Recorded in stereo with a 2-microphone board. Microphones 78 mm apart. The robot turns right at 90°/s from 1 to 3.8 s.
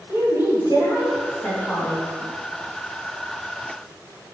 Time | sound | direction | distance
0.1 | a woman speaking | 70° left | 3 m